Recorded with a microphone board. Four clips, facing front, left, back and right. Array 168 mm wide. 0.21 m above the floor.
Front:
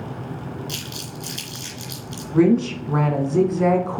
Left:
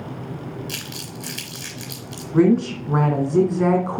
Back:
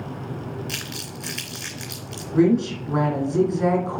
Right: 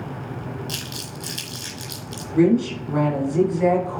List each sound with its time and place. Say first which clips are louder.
0.7 s crumpling: even, even; 155° left, 2 m
2.3 s a woman speaking: left 1 dB, front 2 dB; 75° left, 1.9 m